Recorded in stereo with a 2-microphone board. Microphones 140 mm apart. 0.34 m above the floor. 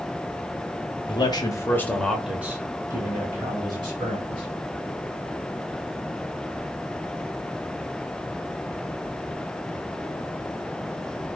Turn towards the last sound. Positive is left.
turn(degrees=-35)  # may be behind; listen again after turning